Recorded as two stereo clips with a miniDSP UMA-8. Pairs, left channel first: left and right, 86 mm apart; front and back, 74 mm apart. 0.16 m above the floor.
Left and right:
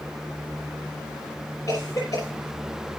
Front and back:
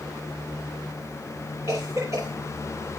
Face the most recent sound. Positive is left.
turn(degrees=135)